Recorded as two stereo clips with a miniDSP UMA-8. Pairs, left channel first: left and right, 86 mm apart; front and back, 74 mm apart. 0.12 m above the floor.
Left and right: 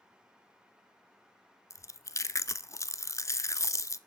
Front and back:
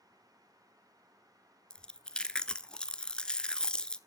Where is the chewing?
70° left, 0.6 m.